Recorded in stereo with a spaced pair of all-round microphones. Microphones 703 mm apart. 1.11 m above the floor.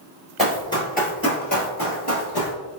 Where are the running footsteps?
Centre (ahead or behind), 1.4 m; by 2.5 s 30° left (ahead or behind), 1.7 m.